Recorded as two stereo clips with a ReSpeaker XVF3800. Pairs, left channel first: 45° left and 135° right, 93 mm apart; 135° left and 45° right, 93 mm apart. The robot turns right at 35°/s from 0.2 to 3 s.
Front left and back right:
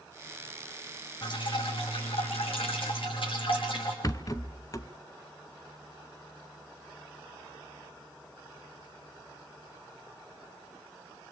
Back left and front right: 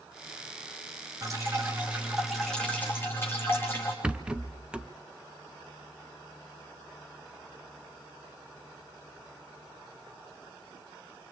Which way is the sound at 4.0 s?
25° left.